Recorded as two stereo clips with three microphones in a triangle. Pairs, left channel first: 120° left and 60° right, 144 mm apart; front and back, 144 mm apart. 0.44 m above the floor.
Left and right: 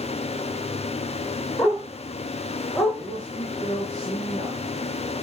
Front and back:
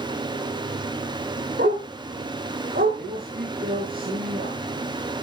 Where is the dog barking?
175° right, 9.5 m; by 3.0 s 170° right, 10 m.